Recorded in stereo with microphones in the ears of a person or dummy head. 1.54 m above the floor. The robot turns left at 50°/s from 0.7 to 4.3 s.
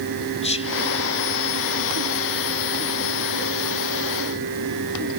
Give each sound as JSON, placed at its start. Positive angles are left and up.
{"t": 0.4, "sound": "whispering", "side_deg": 25, "distance_m": 0.7}